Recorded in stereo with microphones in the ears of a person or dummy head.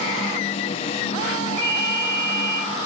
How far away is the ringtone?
About 3.5 m.